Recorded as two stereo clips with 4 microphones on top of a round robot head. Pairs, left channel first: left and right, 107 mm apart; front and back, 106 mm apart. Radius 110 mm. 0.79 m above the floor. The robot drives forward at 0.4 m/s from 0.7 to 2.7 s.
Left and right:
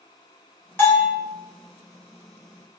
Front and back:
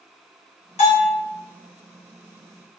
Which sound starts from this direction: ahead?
A bell, at 0.8 s.